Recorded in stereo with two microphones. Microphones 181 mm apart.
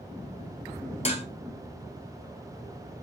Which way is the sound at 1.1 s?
35° left (ahead or behind).